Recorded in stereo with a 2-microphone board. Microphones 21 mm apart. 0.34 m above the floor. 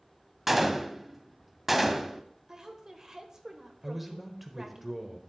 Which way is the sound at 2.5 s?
30° right (ahead or behind).